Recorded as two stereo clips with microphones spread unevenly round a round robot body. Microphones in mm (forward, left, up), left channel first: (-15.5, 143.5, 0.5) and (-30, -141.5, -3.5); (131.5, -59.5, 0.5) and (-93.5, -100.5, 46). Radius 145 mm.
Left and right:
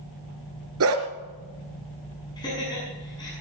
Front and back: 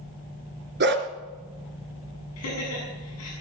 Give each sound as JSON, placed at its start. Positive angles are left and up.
{"t": 0.8, "sound": "a dog barking", "azimuth_deg": -130, "distance_m": 2.0}
{"t": 2.4, "sound": "laughter", "azimuth_deg": 10, "distance_m": 6.5}